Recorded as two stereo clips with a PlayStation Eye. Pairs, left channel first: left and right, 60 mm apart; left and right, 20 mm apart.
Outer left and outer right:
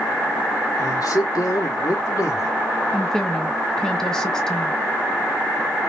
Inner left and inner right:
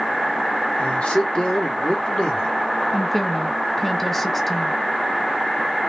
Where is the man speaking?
75° left (ahead or behind), 2 m; by 2.5 s 55° left (ahead or behind), 3 m.